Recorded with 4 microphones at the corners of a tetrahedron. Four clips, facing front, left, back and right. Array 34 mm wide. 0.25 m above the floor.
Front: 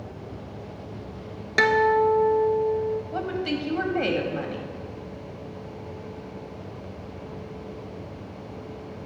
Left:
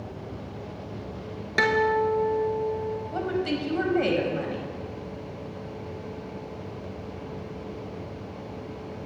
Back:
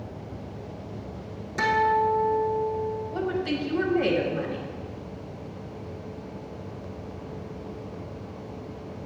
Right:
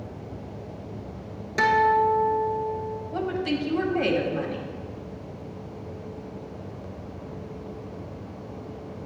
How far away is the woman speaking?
About 1.1 m.